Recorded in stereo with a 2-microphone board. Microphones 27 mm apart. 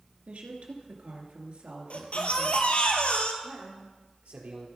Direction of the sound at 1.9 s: 55° left (ahead or behind).